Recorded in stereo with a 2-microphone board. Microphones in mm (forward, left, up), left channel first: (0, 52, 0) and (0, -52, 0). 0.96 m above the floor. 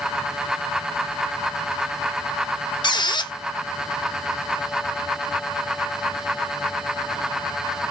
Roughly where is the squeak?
Left.